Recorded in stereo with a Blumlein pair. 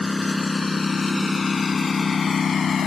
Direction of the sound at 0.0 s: 10° left.